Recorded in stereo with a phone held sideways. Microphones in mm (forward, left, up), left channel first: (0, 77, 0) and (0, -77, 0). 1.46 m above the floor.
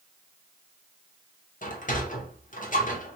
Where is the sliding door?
60° left (ahead or behind), 0.9 m.